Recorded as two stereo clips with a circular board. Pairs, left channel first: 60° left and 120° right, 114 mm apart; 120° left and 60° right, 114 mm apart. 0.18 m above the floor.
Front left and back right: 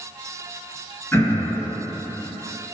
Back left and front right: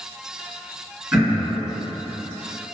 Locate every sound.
1.1 s throat clearing: straight ahead, 2.0 m